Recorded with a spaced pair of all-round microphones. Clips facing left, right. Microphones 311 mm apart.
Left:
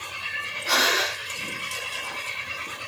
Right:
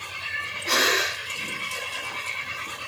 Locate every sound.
0.7 s breathing: 30° right (ahead or behind), 5.5 m